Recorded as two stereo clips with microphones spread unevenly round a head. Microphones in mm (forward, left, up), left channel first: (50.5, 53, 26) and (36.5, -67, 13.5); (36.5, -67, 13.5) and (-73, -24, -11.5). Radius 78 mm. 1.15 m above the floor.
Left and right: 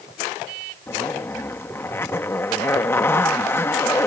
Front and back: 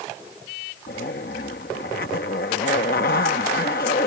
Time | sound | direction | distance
0.9 | a zipper | 15° left | ?